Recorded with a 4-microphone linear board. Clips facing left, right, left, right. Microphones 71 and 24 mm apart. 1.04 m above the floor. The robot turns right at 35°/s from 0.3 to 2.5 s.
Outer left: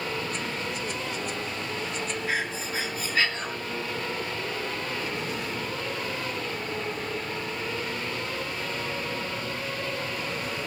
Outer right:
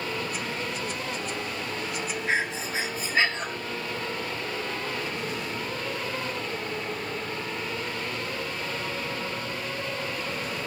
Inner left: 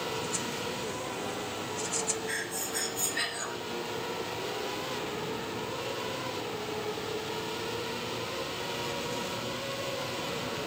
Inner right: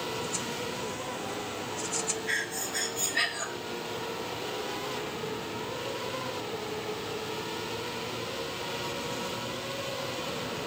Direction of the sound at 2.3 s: 30° right (ahead or behind).